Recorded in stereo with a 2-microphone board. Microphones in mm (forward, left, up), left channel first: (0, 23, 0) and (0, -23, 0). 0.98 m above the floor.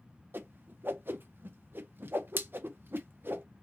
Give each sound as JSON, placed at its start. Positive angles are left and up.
{"t": 0.3, "sound": "a whoosh", "side_deg": -50, "distance_m": 0.7}